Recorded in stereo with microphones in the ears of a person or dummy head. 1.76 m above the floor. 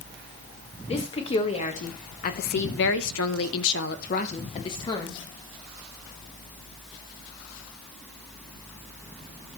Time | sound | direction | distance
0.9 | a woman speaking | 30° left (ahead or behind) | 1.7 m